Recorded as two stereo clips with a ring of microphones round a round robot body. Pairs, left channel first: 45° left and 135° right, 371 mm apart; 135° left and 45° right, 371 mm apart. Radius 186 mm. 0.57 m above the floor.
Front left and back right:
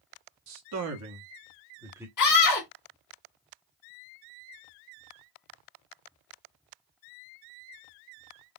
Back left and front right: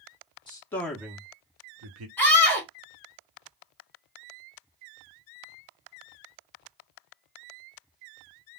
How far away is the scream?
About 1.6 m.